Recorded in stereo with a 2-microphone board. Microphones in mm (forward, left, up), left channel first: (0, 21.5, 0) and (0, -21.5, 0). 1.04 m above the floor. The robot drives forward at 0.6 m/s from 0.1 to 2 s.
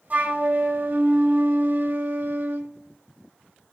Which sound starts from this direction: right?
A flute, at 0.1 s.